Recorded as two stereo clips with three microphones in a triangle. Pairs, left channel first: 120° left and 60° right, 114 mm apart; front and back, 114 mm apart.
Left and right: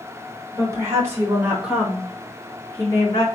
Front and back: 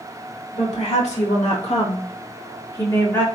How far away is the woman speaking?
About 2.5 m.